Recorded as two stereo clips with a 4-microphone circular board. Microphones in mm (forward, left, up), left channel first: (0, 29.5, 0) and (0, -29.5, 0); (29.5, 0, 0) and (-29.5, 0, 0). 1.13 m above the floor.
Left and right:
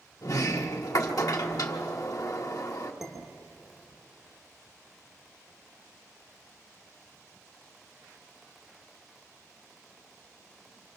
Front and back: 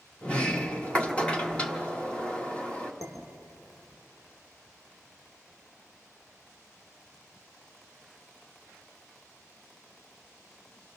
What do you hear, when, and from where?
0.2 s a sliding door: 70° left, 1.3 m
3.0 s dishes clattering: 5° right, 3 m